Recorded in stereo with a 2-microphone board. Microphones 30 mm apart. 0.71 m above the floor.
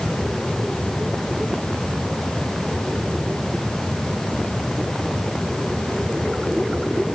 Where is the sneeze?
I don't hear a sneeze.